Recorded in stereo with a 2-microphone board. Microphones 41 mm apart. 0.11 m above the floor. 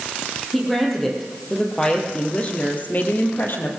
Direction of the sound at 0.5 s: Centre (ahead or behind).